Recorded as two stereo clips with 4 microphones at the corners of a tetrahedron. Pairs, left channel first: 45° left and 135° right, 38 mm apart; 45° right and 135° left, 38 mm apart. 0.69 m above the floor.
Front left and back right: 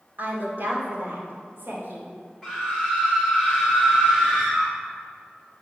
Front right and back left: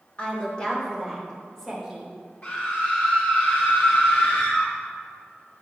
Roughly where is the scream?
Ahead right.